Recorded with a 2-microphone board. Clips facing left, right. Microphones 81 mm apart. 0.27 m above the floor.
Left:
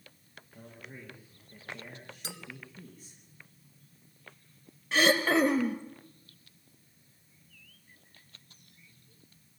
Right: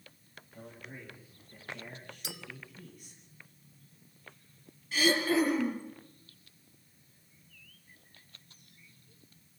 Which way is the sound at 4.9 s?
75° left (ahead or behind).